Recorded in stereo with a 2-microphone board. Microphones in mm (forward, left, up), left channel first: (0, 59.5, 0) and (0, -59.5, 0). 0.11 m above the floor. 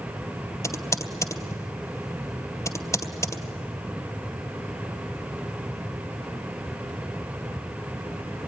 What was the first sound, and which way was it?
Typing on a keyboard, 25° left (ahead or behind).